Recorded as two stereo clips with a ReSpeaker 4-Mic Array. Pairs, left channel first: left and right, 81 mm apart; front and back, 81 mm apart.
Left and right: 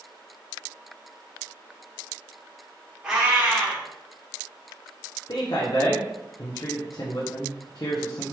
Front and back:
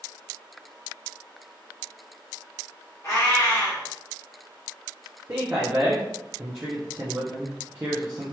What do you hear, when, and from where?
3.0 s a cat meowing: 15° right, 1.1 m
5.3 s a man speaking: 120° left, 0.6 m